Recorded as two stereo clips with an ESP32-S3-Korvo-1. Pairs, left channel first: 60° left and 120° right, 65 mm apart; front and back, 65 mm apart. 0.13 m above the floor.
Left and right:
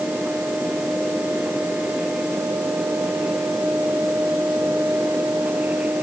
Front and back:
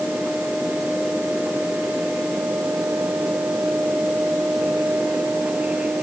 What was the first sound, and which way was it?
Only background noise.